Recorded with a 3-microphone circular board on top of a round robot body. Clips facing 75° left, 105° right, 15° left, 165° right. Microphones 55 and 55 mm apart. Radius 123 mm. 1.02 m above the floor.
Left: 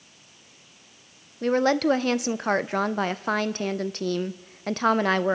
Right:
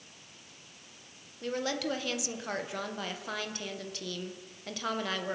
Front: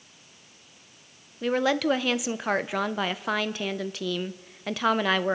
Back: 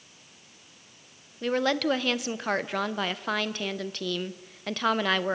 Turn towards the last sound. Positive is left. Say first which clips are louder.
# left 12 dB, front 2 dB
turn(degrees=95)